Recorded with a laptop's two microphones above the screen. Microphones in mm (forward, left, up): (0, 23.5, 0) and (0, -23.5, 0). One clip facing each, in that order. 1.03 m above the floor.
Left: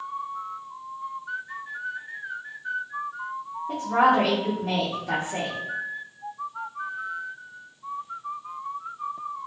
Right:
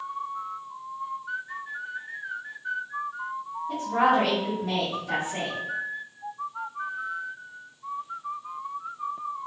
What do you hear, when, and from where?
3.7 s a woman speaking: 60° left (ahead or behind), 1.3 m